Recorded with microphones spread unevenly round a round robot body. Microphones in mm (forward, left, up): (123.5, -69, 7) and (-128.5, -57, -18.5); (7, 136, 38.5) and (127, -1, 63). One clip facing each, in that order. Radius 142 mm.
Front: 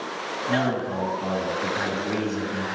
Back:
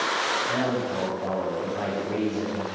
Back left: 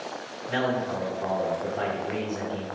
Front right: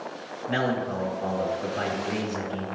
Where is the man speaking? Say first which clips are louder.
Front 2 dB, even; 5° right, 3 m.